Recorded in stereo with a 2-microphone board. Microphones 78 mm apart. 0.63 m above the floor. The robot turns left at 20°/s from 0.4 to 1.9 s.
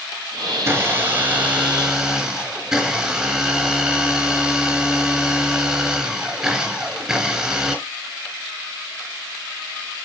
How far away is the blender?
About 4 m.